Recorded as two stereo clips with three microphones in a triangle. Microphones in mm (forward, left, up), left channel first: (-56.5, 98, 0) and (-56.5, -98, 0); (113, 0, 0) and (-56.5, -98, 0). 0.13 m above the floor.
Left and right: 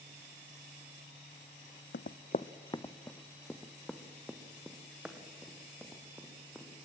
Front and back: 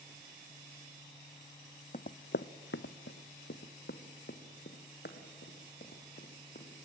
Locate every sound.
1.9 s running footsteps: 75° left, 0.6 m; by 6.9 s 10° right, 4 m